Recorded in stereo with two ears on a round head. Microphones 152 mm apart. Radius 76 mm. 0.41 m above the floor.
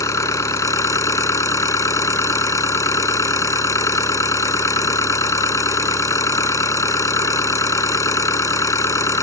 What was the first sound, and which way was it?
An engine running, 20° left (ahead or behind).